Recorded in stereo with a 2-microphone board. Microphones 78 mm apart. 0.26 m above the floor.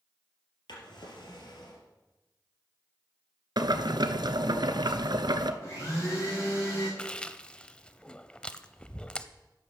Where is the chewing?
15° left (ahead or behind), 0.6 m.